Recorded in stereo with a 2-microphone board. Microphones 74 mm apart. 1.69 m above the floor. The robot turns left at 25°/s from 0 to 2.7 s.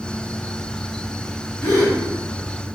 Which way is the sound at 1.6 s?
25° left (ahead or behind).